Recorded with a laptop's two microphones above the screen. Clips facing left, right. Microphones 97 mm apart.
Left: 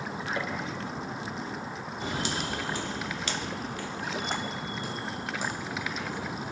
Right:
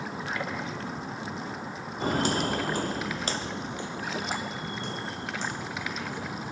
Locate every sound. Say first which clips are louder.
0.3 s a gunshot: left 1 dB; 30° left (ahead or behind), 9.5 m
2.0 s footsteps: right 7 dB; 45° right (ahead or behind), 2 m; by 6.5 s 15° left (ahead or behind), 4 m